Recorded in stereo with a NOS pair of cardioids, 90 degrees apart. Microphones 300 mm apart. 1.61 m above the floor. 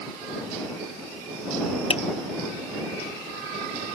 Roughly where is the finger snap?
Ahead.